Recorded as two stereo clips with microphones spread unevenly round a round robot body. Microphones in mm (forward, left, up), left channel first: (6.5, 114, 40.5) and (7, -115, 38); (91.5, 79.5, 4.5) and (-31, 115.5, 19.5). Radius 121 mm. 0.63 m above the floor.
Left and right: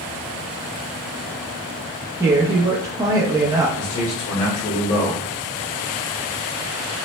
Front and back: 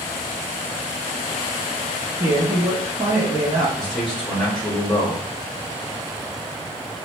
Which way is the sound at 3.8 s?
65° left.